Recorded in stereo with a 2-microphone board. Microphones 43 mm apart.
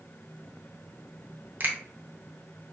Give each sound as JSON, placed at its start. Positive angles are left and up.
{"t": 1.6, "sound": "a finger snap", "side_deg": -45, "distance_m": 0.6}